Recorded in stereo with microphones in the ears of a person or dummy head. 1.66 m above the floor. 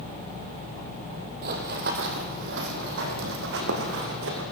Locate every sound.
1.4 s running footsteps: 40° right (ahead or behind), 2.5 m; by 4.4 s 70° right (ahead or behind), 5 m